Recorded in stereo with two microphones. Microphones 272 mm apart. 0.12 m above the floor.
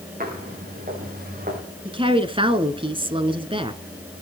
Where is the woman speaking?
20° right (ahead or behind), 1.1 m.